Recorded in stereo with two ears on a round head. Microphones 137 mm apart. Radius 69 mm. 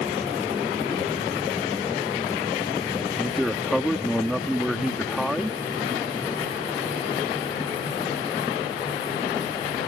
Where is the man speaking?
Centre (ahead or behind).